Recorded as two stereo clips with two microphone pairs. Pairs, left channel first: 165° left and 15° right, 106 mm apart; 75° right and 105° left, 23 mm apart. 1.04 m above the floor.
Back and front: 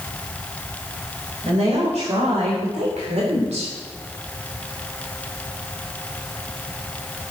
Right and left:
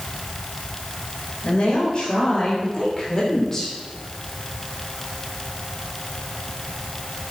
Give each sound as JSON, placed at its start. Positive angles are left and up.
{"t": 1.4, "sound": "a woman speaking", "azimuth_deg": -25, "distance_m": 4.0}